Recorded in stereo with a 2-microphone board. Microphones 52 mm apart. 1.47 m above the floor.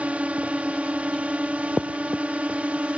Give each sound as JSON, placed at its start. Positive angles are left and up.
{"t": 0.0, "sound": "a drone", "side_deg": -25}